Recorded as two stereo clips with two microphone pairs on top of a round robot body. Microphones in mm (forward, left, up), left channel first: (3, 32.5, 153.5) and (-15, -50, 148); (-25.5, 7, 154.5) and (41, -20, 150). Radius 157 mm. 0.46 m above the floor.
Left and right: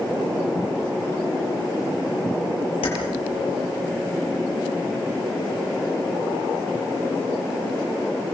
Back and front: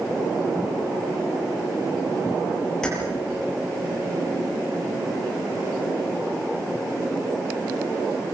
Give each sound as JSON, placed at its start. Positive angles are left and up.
{"t": 2.8, "sound": "keys jangling", "azimuth_deg": 75, "distance_m": 8.5}